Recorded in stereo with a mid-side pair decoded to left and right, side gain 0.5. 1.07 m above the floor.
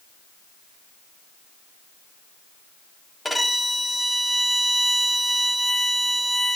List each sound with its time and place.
3.2 s a violin: 10° left, 1.0 m